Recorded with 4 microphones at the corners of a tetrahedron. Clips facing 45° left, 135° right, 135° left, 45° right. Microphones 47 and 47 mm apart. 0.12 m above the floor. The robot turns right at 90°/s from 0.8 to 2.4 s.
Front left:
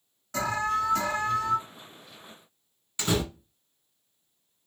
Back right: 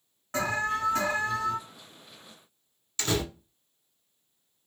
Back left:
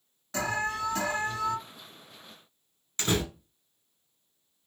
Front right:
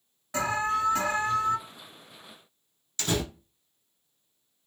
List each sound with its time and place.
0.3 s an alarm: 115° right, 1.7 m; by 1.6 s 45° right, 1.7 m
3.0 s a door slam: 105° left, 1.1 m